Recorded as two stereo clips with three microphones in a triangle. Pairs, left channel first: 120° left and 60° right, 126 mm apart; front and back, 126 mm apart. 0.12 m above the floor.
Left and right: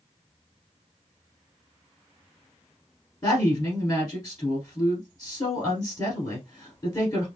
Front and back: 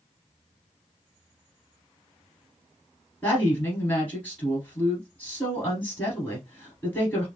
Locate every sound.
3.2 s a woman speaking: 70° left, 1.7 m